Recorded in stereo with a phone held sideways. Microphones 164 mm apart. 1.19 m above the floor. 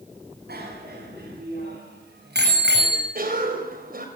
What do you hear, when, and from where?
0.5 s a bicycle bell: 70° right (ahead or behind), 8 m; by 3.0 s 90° right, 5 m
3.1 s a cough: 60° right (ahead or behind), 6.5 m